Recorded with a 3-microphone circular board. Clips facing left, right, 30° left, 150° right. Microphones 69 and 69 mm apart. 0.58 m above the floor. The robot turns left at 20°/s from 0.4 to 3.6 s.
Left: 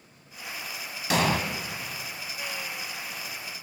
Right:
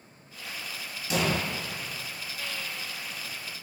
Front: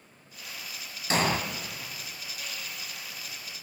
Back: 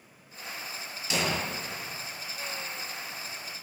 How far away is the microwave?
I don't hear a microwave.